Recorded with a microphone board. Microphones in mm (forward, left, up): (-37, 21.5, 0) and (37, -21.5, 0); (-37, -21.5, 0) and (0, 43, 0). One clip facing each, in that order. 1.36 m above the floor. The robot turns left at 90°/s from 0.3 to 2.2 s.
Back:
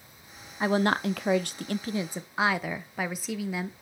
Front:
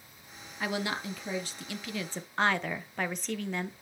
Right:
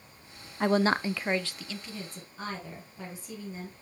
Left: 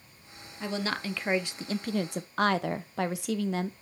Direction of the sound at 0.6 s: 150° right.